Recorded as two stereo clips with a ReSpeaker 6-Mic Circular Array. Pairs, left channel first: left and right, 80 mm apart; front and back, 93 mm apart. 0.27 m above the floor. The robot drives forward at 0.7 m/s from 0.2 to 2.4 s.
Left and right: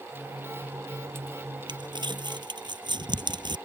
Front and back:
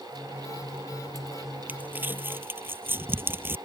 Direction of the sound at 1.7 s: 110° right.